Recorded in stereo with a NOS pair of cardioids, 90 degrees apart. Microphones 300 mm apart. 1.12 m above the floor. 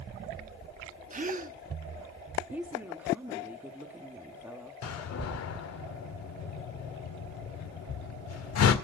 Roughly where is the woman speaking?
Ahead.